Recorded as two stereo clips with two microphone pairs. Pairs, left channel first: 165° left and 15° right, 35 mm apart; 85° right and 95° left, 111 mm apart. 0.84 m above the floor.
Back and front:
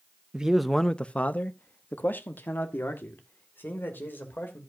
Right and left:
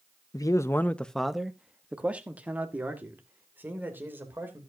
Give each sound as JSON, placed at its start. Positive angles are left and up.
{"t": 0.3, "sound": "a man speaking", "azimuth_deg": -65, "distance_m": 0.6}